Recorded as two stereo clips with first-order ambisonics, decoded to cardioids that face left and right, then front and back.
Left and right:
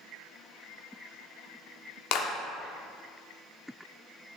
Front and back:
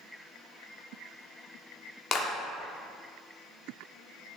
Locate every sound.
2.1 s a clap: 60° left, 1.0 m